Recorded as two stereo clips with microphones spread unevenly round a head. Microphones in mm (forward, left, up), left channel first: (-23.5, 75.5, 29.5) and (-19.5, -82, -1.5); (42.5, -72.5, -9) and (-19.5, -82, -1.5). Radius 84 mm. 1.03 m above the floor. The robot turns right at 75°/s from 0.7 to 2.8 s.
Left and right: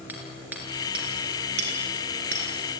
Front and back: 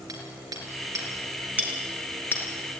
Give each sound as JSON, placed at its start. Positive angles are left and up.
{"t": 0.1, "sound": "hammering", "azimuth_deg": -170, "distance_m": 5.0}